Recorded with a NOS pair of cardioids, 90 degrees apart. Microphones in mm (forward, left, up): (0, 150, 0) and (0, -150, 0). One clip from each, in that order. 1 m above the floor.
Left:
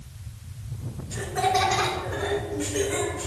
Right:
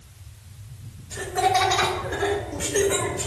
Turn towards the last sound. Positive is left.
turn(degrees=-50)